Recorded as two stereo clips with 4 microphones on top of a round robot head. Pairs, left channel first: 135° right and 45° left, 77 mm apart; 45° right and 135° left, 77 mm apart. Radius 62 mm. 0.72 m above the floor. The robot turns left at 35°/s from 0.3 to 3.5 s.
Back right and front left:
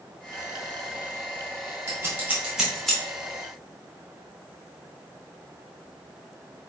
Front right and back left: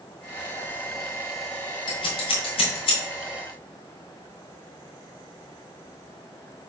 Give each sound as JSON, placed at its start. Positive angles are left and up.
{"t": 1.9, "sound": "scissors", "azimuth_deg": -15, "distance_m": 3.0}